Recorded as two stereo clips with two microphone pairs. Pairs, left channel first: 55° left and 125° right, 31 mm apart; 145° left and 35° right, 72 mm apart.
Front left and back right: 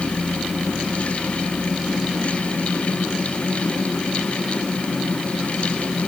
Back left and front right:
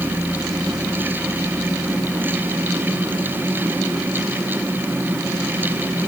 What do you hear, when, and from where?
Only background noise.